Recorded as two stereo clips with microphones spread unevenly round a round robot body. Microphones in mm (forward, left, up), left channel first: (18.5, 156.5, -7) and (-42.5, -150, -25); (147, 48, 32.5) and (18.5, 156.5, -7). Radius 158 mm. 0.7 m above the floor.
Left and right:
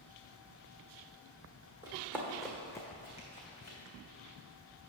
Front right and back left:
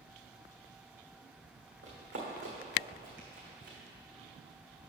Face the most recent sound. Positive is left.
turn(degrees=135)